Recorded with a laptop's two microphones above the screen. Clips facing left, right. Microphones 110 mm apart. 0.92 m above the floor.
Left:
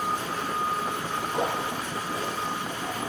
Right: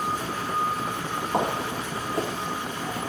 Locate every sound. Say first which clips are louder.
1.3 s footsteps: right 3 dB; 50° right (ahead or behind), 1.6 m; by 3.0 s 25° right (ahead or behind), 1.0 m